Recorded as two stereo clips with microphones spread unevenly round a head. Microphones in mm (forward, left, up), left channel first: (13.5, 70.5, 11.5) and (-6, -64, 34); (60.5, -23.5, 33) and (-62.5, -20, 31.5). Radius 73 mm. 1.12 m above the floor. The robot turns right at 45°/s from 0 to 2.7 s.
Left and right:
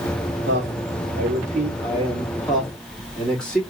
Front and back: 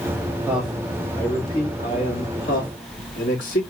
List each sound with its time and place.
0.5 s a man speaking: 105° right, 2.5 m; by 3.6 s straight ahead, 2.5 m